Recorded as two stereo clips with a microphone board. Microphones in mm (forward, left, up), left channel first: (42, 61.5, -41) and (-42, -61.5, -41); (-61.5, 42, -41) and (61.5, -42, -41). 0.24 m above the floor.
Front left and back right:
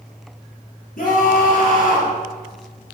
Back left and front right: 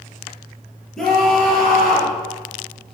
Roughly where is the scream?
Ahead left.